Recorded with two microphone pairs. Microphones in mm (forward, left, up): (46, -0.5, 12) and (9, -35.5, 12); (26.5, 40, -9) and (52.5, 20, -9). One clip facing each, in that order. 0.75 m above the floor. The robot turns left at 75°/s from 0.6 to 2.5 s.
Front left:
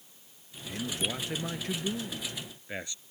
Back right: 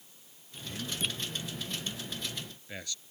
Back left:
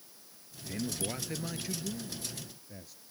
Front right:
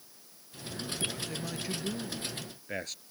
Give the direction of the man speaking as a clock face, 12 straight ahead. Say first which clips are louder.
Front left 3 dB, even; 8 o'clock.